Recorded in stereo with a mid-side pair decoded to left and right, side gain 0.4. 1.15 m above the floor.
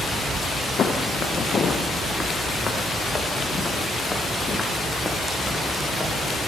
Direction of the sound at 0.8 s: 55° left.